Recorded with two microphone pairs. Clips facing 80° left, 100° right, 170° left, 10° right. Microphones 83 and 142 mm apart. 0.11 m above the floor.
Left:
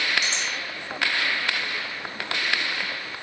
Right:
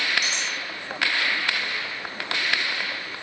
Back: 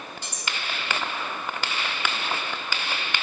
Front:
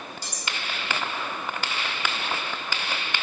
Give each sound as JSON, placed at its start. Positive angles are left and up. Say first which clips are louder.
{"t": 0.2, "sound": "cutlery clinking", "louder": "even, back 1 dB", "azimuth_deg": -65, "distance_m": 3.5}